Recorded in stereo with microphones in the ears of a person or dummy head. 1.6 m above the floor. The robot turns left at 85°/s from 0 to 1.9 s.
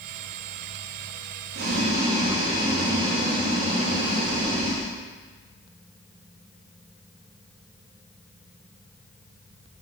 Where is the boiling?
60° right (ahead or behind), 1.1 m; by 4.9 s 30° right (ahead or behind), 1.1 m.